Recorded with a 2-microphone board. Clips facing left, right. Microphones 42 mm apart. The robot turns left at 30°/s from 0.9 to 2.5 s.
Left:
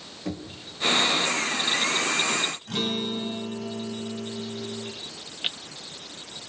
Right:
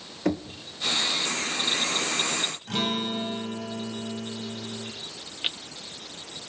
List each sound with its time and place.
0.2 s knocking: 75° right (ahead or behind), 2 m
2.7 s a guitar: 35° right (ahead or behind), 3.5 m